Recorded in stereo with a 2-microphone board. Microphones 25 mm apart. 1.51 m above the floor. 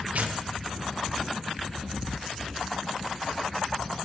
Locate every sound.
0.1 s tearing paper: 85° right, 1.3 m